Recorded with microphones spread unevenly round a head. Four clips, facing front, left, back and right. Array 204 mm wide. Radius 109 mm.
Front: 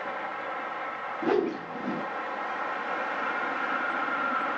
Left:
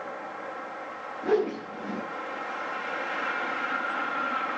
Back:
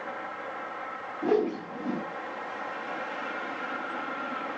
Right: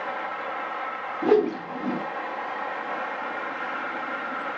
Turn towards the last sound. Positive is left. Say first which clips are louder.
# right 5 dB, back 1 dB
turn(degrees=-75)